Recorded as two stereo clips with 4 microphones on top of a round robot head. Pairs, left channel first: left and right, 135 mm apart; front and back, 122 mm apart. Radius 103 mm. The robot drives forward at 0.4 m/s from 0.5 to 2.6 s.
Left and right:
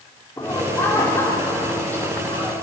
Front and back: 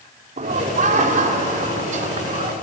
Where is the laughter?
165° left, 2.5 m; by 2.5 s 170° left, 3.5 m.